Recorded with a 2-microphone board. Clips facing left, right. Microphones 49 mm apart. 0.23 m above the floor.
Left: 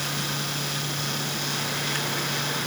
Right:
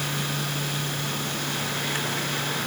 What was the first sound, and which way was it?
Only background noise.